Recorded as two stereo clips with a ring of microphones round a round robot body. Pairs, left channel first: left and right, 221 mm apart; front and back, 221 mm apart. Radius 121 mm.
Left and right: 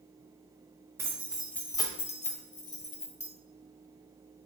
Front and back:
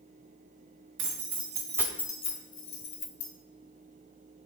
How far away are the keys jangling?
About 1.1 m.